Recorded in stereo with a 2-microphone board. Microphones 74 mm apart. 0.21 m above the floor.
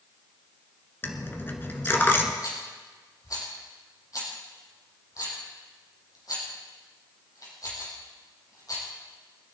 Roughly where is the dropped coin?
Left.